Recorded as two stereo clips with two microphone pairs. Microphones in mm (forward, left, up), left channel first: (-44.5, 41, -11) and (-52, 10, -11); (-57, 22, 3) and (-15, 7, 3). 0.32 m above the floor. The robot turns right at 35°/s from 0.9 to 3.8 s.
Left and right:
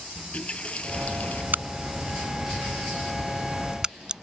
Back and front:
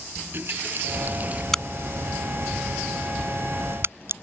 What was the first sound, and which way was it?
A running tap, 20° left.